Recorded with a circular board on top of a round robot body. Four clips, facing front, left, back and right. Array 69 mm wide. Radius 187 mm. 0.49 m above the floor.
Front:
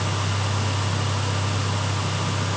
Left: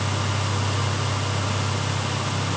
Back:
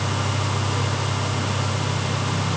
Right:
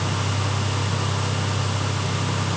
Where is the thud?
I don't hear a thud.